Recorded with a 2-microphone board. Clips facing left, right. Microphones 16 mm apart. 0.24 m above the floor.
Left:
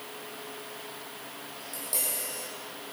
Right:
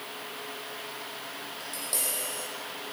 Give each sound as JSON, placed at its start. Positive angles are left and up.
{"t": 1.6, "sound": "tapping", "side_deg": -15, "distance_m": 4.0}